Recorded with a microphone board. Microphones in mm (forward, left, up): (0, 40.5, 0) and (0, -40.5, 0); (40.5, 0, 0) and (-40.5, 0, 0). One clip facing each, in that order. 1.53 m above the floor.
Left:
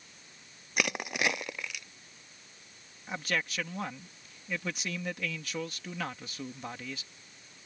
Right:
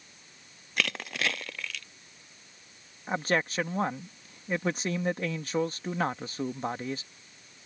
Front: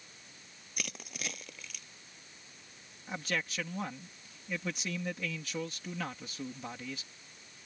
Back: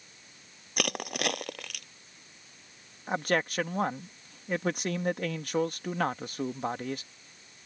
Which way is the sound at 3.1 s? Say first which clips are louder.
Right 6 dB, back 8 dB; 145° right.